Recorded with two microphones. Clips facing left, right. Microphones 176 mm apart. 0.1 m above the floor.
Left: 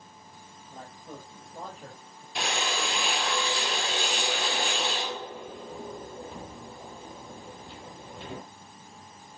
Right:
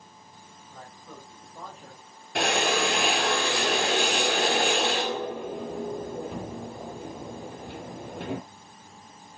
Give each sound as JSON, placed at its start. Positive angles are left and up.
{"t": 0.7, "sound": "a man speaking", "side_deg": 20, "distance_m": 5.5}
{"t": 2.4, "sound": "a drill", "side_deg": -65, "distance_m": 1.3}